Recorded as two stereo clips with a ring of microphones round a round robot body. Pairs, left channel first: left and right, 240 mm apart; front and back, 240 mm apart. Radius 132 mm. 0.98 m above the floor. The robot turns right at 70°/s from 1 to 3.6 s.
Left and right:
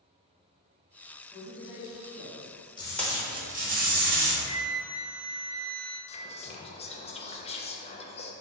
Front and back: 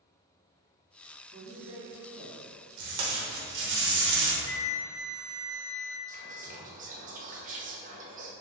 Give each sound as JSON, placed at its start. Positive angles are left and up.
{"t": 1.3, "sound": "a man speaking", "azimuth_deg": 175, "distance_m": 1.7}
{"t": 2.8, "sound": "tape being pulled", "azimuth_deg": 160, "distance_m": 0.8}
{"t": 4.5, "sound": "a flute", "azimuth_deg": -80, "distance_m": 0.5}
{"t": 6.1, "sound": "whispering", "azimuth_deg": 140, "distance_m": 0.5}